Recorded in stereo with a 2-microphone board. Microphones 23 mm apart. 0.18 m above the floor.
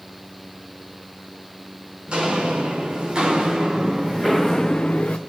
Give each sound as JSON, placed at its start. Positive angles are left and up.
{"t": 2.1, "sound": "footsteps", "side_deg": -40, "distance_m": 3.5}